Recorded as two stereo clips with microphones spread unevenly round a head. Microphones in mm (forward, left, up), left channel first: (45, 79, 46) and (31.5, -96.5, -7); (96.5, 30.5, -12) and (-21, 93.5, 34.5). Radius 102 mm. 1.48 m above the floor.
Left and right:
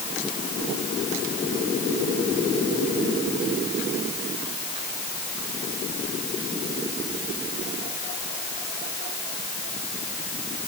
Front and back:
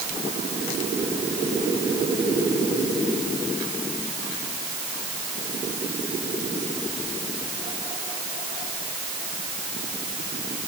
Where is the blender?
No blender in this recording.